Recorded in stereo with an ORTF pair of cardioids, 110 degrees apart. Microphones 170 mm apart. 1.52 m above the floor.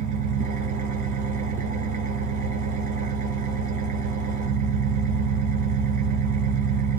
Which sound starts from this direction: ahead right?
An engine running, at 0.0 s.